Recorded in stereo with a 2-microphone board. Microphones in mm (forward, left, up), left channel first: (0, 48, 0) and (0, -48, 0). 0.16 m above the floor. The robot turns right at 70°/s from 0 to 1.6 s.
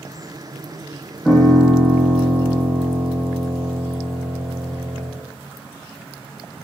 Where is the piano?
10° left (ahead or behind), 6 m; by 5.1 s 10° right (ahead or behind), 6 m.